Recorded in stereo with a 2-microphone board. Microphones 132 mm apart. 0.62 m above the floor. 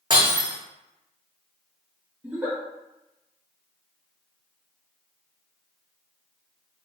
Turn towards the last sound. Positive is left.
turn(degrees=-10)  # may be behind; listen again after turning